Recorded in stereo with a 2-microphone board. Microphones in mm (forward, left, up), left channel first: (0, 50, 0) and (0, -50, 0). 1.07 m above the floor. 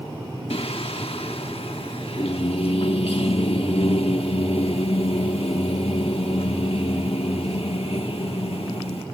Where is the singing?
70° left (ahead or behind).